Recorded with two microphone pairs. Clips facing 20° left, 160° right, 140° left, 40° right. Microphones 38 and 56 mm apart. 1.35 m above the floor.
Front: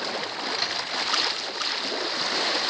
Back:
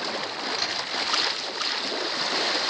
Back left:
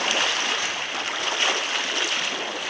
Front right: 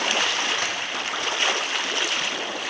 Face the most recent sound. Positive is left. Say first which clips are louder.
# front 1 dB, front right 1 dB
turn(degrees=-65)